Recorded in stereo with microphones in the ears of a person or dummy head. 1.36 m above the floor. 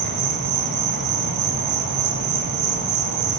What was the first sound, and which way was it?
An insect, 55° right (ahead or behind).